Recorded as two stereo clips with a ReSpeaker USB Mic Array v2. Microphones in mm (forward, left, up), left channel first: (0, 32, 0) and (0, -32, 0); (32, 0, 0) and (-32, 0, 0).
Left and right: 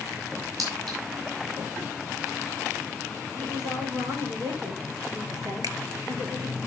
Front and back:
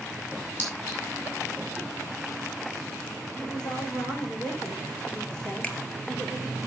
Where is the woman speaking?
75° right, 5.5 m.